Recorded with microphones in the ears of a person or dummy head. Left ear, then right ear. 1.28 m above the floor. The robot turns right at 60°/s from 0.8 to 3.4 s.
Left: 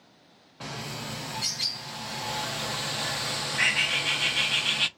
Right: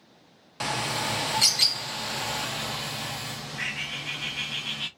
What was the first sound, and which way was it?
A bird, 105° right.